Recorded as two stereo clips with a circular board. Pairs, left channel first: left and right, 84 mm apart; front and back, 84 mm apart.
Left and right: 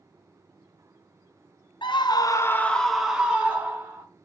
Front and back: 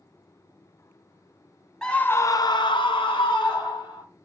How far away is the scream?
About 0.6 m.